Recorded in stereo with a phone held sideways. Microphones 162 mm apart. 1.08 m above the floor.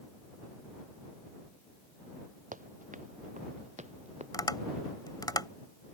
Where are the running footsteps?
55° right (ahead or behind); by 4.2 s 45° right (ahead or behind).